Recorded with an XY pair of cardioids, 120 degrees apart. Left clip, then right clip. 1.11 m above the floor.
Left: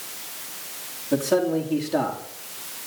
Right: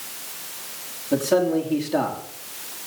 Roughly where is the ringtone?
No ringtone in this recording.